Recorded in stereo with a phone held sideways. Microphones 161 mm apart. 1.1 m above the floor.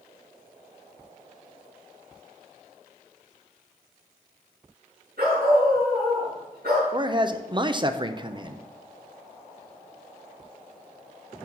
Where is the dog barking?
85° right, 5.5 m.